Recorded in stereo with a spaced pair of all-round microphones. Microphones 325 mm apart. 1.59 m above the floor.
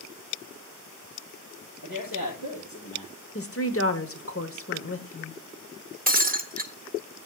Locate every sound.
1.8 s a man speaking: 85° left, 6.5 m
3.4 s a woman speaking: 45° left (ahead or behind), 0.9 m
6.1 s breaking glass: 25° right (ahead or behind), 0.7 m